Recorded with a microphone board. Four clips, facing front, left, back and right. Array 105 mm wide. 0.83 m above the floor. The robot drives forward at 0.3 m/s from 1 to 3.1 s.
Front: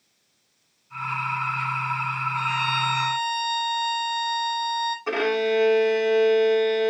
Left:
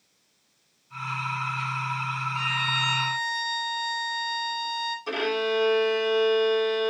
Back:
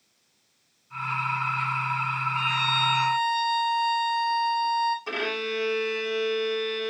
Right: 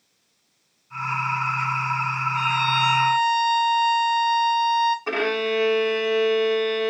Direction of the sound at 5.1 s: 55° right.